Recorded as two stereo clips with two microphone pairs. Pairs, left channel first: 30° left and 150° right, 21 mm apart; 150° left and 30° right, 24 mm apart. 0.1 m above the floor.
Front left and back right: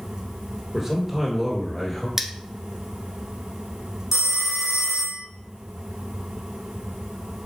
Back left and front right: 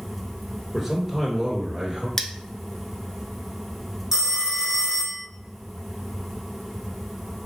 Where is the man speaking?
100° right, 1.5 m; by 2.1 s 50° right, 1.6 m.